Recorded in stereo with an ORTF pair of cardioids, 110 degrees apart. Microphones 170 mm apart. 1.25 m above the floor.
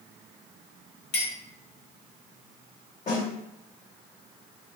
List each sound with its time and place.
1.1 s a clink: 65° left, 1.2 m
3.1 s a snare drum: 45° left, 1.2 m